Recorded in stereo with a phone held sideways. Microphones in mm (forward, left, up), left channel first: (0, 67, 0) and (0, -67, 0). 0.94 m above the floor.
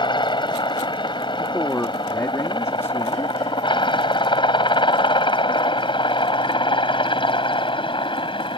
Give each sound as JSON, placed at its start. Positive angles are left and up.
{"t": 0.0, "sound": "a helicopter", "side_deg": 35}
{"t": 1.4, "sound": "a man speaking", "side_deg": 20}